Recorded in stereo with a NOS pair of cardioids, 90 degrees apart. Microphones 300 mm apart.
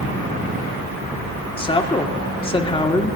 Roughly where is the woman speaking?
Ahead.